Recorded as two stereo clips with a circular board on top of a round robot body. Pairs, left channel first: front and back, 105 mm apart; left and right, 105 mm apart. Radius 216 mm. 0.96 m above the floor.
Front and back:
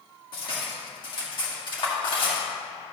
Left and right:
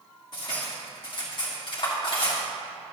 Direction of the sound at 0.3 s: 45° left.